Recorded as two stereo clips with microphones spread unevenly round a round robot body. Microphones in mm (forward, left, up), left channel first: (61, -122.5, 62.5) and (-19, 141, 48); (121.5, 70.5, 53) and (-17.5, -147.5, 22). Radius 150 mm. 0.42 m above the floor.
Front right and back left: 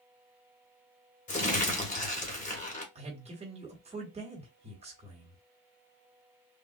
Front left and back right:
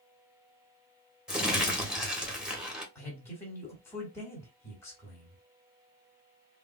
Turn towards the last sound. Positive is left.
turn(degrees=140)